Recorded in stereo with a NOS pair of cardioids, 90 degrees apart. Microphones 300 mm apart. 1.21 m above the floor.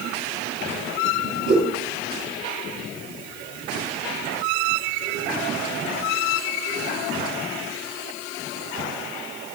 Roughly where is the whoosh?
Ahead right.